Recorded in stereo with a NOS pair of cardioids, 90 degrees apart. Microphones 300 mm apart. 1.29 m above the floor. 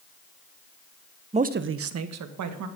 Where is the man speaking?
20° right, 0.8 m; by 2.7 s 70° right, 2.0 m.